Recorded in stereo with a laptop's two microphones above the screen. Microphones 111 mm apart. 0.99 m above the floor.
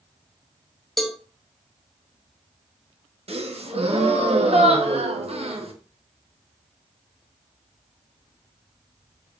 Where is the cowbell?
Centre (ahead or behind), 0.6 m.